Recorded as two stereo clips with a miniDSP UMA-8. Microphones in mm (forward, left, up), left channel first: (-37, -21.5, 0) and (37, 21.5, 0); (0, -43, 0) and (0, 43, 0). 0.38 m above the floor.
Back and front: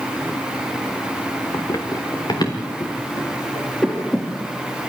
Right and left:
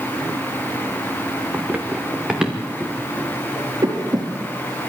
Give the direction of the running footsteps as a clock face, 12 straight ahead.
7 o'clock.